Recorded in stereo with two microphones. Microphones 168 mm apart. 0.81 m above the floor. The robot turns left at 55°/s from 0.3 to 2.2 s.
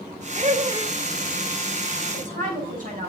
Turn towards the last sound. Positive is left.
turn(degrees=-55)  # may be behind; listen again after turning